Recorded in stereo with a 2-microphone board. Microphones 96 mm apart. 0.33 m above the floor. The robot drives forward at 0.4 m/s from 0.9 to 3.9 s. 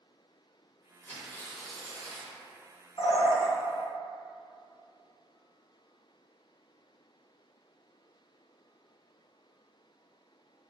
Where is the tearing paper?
20° left (ahead or behind), 0.6 m; by 2.4 s 15° left (ahead or behind), 0.9 m.